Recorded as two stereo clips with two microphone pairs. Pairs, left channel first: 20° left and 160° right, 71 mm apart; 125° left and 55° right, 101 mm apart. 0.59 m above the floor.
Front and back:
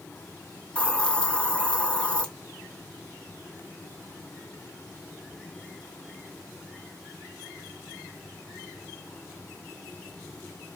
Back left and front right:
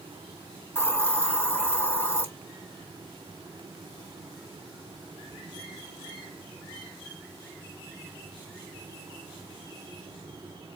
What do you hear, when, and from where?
0.8 s a hiss: 80° left, 0.9 m